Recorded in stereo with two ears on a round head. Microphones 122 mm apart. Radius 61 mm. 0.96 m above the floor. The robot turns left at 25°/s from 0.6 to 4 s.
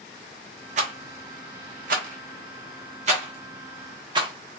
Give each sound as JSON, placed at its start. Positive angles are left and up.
{"t": 0.8, "sound": "a rattle", "side_deg": -55, "distance_m": 0.7}